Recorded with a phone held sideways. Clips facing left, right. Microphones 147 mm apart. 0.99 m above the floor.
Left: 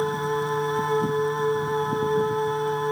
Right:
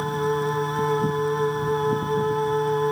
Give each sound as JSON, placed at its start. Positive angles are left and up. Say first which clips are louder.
{"t": 0.0, "sound": "a machine running", "louder": "right 1 dB", "side_deg": 0, "distance_m": 2.5}